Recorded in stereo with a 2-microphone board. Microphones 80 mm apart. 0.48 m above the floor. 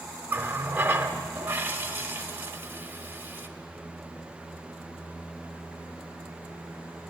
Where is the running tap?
25° right (ahead or behind), 0.7 m.